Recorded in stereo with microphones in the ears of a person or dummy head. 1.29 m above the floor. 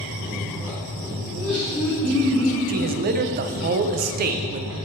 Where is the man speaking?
45° right (ahead or behind), 0.7 m.